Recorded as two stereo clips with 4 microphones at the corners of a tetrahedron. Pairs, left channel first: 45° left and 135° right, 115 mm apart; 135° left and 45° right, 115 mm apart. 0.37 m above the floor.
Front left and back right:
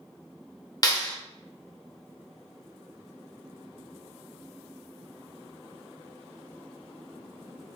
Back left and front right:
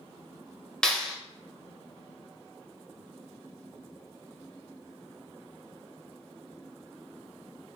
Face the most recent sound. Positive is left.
turn(degrees=55)